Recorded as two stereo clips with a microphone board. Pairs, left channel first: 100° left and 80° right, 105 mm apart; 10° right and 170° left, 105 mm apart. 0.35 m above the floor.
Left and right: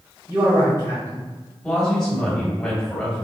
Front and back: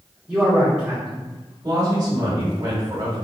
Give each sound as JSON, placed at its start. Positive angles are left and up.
{"t": 0.3, "sound": "a man speaking", "azimuth_deg": -105, "distance_m": 1.4}
{"t": 1.6, "sound": "a woman speaking", "azimuth_deg": 180, "distance_m": 1.7}